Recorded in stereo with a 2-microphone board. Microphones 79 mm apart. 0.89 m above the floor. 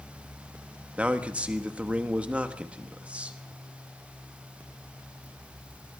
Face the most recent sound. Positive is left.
turn(degrees=-15)  # may be behind; listen again after turning